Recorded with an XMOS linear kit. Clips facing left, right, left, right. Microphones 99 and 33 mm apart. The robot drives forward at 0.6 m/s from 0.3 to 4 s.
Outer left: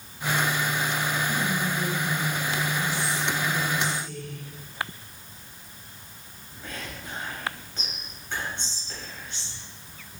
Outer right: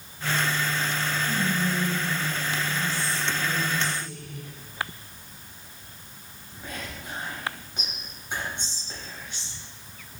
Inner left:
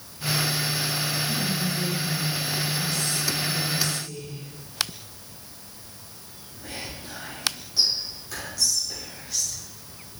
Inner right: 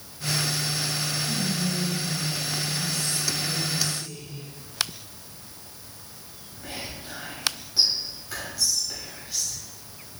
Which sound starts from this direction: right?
Whispering, at 1.3 s.